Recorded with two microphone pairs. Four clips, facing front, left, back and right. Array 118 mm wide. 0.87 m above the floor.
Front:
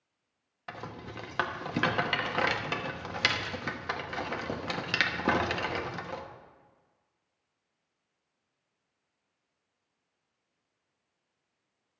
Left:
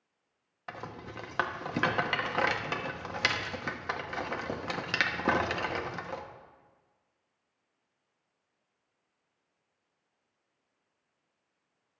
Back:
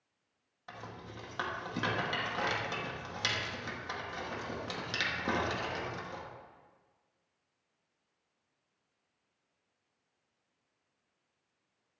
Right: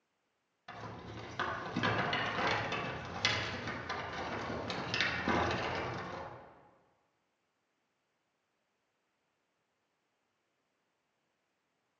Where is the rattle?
65° left, 1.1 m.